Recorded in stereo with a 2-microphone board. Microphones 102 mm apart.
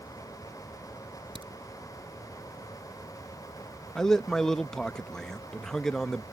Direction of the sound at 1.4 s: 60° right (ahead or behind).